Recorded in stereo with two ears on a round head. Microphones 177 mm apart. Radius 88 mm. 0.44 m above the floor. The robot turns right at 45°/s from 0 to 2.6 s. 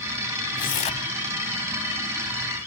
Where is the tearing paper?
45° left (ahead or behind), 1.0 m; by 1.1 s 25° left (ahead or behind), 1.0 m.